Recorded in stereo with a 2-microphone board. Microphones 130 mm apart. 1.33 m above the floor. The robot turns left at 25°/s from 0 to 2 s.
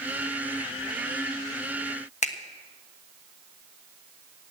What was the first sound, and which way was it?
A finger snap, 65° left (ahead or behind).